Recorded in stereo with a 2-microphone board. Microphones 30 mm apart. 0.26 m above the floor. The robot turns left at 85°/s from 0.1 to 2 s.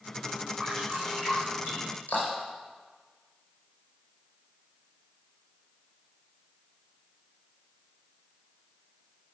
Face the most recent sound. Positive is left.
turn(degrees=75)  # may be behind; listen again after turning